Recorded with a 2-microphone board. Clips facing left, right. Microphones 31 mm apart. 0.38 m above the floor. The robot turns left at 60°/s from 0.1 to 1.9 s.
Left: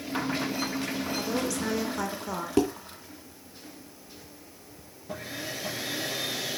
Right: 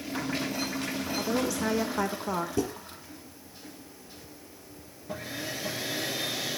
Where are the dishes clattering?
75° left (ahead or behind), 3 m.